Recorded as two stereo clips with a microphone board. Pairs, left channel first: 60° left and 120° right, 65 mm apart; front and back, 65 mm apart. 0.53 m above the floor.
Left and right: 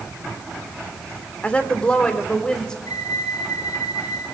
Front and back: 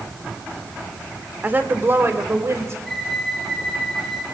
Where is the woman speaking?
125° left, 1.8 m; by 2.8 s 140° left, 3.5 m.